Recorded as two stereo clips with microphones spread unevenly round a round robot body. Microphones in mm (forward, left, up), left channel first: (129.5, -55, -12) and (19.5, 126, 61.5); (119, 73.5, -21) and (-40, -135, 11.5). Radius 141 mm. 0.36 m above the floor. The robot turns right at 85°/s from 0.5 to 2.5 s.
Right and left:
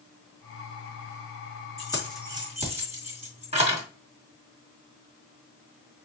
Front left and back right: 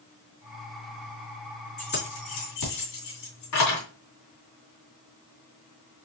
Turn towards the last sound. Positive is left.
turn(degrees=55)